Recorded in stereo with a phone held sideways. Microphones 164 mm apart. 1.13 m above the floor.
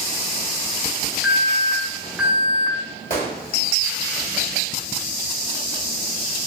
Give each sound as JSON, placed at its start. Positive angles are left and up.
{"t": 1.2, "sound": "an alarm", "side_deg": -5, "distance_m": 1.0}
{"t": 3.1, "sound": "a gunshot", "side_deg": 55, "distance_m": 1.7}